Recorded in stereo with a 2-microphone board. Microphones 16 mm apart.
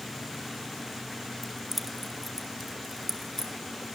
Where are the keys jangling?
Centre (ahead or behind), 1.7 m; by 3.5 s 15° left (ahead or behind), 3.5 m.